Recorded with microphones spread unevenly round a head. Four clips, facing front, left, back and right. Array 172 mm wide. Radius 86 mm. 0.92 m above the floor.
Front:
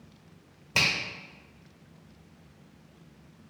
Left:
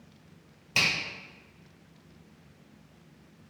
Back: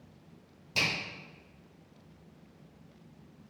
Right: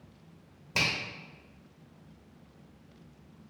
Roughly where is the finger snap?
Ahead right.